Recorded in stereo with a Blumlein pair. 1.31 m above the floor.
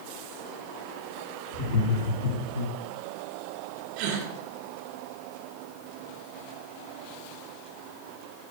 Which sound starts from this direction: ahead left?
Laughter, at 1.5 s.